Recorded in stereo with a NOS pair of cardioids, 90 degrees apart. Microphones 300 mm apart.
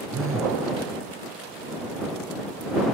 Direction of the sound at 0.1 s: 45° right.